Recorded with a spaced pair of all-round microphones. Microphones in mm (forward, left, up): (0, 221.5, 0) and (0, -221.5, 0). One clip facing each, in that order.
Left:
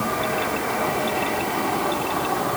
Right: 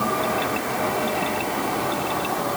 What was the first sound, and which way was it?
Only background noise.